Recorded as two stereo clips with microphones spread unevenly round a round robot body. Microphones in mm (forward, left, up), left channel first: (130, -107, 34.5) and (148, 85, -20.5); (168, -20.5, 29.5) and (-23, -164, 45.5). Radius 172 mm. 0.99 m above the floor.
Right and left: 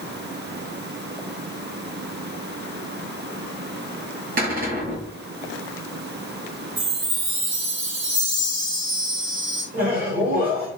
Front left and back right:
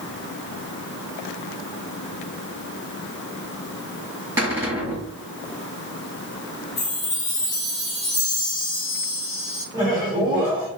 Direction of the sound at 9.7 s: 140° left.